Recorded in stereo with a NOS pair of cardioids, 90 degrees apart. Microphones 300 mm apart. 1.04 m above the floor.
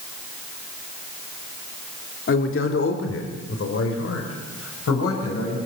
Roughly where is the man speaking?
Ahead left.